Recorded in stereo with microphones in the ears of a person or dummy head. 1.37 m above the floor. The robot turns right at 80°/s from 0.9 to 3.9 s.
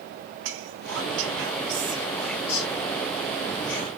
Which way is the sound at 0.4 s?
65° right (ahead or behind).